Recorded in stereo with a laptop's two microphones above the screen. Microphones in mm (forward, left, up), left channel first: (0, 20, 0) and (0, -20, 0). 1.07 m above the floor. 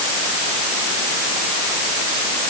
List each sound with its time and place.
Only background noise.